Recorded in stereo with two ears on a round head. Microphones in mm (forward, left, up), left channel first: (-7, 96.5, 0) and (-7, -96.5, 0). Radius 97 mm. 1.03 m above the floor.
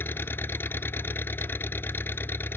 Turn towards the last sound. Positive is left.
turn(degrees=10)  # may be behind; listen again after turning